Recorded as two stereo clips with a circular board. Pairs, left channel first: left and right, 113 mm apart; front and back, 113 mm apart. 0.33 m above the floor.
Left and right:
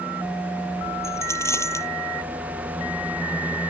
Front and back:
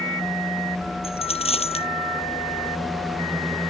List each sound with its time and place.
1.0 s a dropped coin: 25° left